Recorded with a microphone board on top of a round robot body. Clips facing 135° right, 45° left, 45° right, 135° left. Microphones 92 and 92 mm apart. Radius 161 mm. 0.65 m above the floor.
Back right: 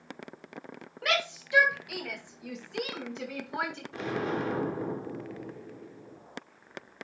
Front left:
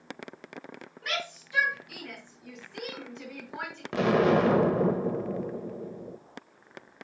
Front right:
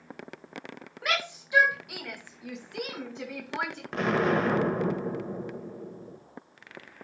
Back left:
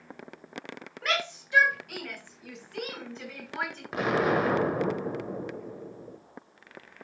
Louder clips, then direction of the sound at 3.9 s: Front left 10 dB, even; 50° left.